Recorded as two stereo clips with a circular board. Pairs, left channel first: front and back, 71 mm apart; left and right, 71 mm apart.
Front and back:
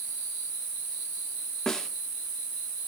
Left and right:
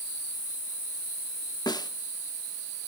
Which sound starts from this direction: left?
A snare drum, at 1.7 s.